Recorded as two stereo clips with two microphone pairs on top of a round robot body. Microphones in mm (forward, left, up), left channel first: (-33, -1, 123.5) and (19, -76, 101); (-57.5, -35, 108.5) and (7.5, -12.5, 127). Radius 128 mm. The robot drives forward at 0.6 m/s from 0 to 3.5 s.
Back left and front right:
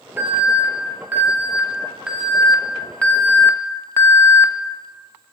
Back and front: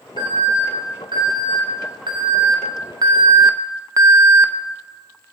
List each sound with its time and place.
0.2 s an alarm: 10° left, 2.5 m; by 4.5 s 55° left, 0.7 m